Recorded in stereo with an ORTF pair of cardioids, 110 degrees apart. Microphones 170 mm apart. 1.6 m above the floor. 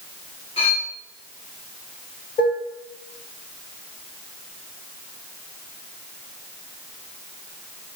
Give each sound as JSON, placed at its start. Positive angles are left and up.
{"t": 0.6, "sound": "cutlery clinking", "azimuth_deg": 40, "distance_m": 2.5}
{"t": 2.4, "sound": "dishes clattering", "azimuth_deg": 60, "distance_m": 2.0}